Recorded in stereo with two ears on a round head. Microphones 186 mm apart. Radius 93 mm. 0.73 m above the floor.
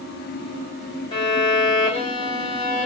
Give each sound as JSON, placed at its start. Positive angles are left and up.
{"t": 1.1, "sound": "a violin", "side_deg": 25, "distance_m": 5.5}